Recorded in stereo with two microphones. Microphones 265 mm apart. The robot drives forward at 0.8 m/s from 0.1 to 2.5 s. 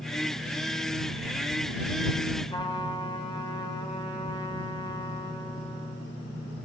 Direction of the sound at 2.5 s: 20° left (ahead or behind).